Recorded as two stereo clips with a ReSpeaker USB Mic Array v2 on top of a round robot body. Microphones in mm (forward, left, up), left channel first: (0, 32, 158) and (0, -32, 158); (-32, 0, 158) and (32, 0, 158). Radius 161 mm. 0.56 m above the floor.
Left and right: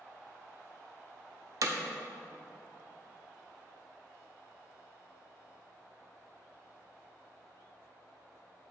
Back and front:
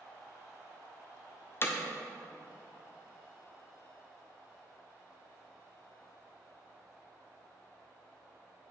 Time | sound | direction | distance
1.6 | hammering | 125° right | 0.5 m